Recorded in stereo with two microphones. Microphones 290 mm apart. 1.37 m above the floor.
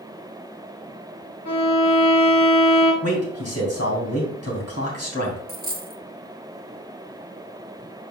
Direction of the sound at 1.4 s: 80° left.